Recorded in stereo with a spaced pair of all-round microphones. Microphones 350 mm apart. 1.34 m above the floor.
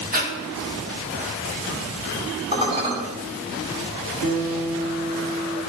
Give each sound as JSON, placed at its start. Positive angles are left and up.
{"t": 0.1, "sound": "breathing", "side_deg": -25, "distance_m": 2.5}
{"t": 2.5, "sound": "dishes clattering", "side_deg": -20, "distance_m": 3.5}
{"t": 4.2, "sound": "a guitar", "side_deg": -80, "distance_m": 4.5}